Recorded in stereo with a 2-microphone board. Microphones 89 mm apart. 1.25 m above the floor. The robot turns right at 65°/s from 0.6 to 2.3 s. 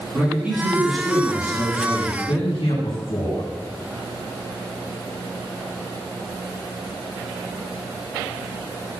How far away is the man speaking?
About 9.5 m.